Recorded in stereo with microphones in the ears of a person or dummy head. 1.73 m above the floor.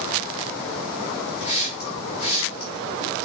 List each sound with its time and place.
1.4 s a hiss: 30° left (ahead or behind), 1.4 m